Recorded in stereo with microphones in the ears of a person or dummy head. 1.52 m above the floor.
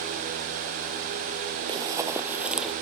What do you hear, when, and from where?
1.7 s running footsteps: 20° right (ahead or behind); by 2.7 s centre (ahead or behind)